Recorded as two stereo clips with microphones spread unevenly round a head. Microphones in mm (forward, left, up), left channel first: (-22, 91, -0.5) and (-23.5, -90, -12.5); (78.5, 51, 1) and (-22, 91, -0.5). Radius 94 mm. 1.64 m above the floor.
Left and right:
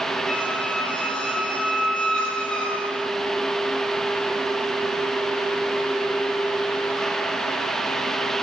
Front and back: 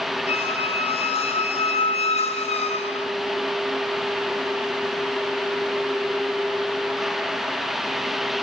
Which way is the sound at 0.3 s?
5° left.